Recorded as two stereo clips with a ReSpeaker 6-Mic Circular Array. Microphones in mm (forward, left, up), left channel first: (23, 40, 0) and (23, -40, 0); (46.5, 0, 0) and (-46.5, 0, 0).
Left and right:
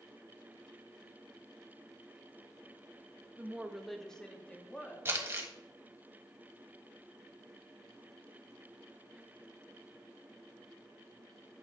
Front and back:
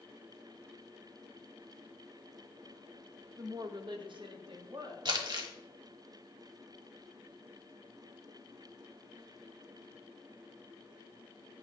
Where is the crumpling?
150° right, 1.5 m.